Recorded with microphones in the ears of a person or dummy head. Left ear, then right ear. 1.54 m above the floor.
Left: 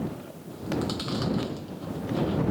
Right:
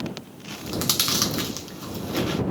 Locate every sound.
0.5 s chewing: 75° right (ahead or behind)